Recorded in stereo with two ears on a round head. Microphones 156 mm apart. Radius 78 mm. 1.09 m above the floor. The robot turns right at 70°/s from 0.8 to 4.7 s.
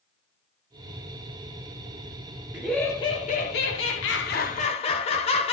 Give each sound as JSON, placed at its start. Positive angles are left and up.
{"t": 2.5, "sound": "laughter", "azimuth_deg": -10, "distance_m": 0.8}